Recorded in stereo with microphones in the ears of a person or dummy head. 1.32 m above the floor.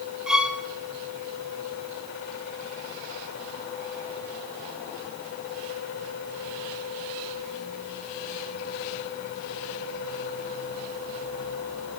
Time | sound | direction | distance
0.3 | a violin | 5° right (ahead or behind) | 0.6 m